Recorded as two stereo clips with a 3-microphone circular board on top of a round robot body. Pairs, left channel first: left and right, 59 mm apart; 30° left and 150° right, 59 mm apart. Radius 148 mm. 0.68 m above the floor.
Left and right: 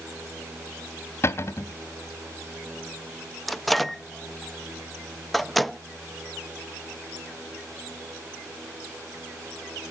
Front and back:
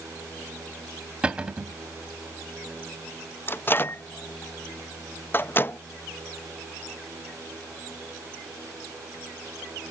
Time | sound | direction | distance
1.2 | a cupboard door | 135° left | 0.6 m
3.5 | a microwave | 5° left | 0.5 m